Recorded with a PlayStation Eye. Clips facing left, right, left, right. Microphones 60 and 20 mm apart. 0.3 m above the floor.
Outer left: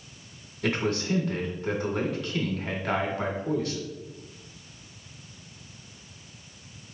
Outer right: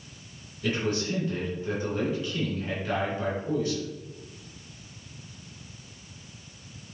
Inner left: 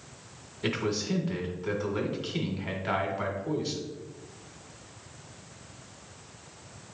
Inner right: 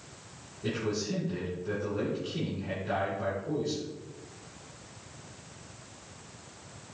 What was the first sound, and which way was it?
A man speaking, 65° left (ahead or behind).